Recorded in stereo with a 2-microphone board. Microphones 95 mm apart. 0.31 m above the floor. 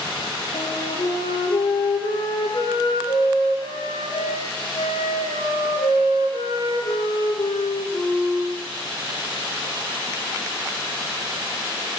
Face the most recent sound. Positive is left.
turn(degrees=75)  # may be behind; listen again after turning